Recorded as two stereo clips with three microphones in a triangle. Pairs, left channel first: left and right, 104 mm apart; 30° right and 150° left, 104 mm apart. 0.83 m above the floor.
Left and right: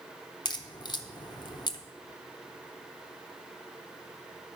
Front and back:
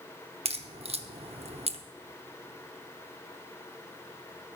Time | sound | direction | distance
0.5 | a crack | 135° left | 0.7 m